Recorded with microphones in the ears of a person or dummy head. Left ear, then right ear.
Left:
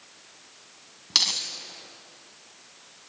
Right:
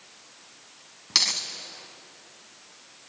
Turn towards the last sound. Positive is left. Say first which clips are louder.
# even
turn(degrees=-10)  # may be behind; listen again after turning